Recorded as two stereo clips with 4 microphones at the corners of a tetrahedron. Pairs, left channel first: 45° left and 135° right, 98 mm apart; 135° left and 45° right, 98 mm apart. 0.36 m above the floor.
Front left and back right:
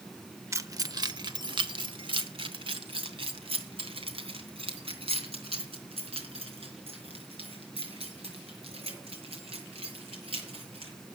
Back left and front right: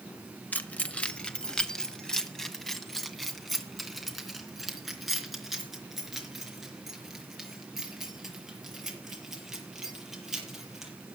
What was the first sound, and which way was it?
Keys jangling, 165° right.